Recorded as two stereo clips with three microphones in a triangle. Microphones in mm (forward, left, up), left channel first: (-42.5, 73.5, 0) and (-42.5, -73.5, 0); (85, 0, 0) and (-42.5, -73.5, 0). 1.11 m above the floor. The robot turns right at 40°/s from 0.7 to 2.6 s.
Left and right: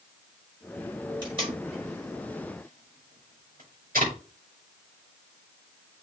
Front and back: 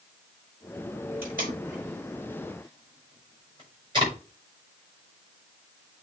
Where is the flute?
I don't hear a flute.